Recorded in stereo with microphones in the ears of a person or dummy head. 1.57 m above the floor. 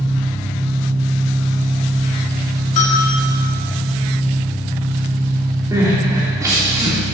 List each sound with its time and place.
0.0 s an engine running: 15° right (ahead or behind), 1.9 m
2.8 s a bell: 35° left (ahead or behind), 2 m
5.7 s crying: 15° right (ahead or behind), 3 m